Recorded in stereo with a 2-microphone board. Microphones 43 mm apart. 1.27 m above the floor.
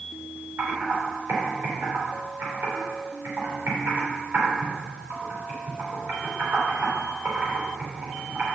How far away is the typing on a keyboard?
About 3 m.